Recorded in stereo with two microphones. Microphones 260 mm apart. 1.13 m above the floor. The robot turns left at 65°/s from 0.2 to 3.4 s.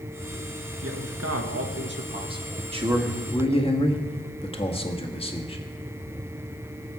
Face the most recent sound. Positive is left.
turn(degrees=160)